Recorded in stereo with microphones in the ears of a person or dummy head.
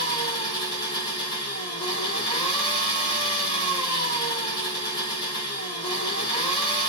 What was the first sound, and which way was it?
An engine running, 25° left (ahead or behind).